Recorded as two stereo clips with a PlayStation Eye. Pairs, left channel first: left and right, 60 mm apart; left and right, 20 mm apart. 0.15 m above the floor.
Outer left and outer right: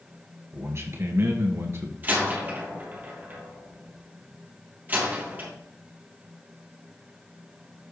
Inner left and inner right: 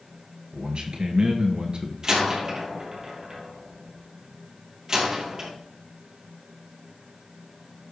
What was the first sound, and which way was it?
A man speaking, 50° right (ahead or behind).